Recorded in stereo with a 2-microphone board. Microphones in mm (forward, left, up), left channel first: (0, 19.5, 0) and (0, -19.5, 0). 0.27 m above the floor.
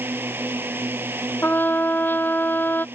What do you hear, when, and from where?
0.0 s a drone: 75° right (ahead or behind)
1.4 s a trumpet: 75° left (ahead or behind)